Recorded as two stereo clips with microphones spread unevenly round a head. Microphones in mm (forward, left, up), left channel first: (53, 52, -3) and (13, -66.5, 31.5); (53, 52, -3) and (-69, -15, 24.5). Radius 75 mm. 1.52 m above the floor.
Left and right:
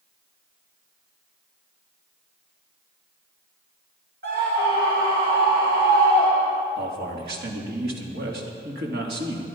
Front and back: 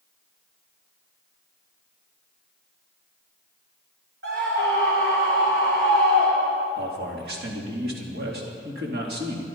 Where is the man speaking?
125° right, 3 m.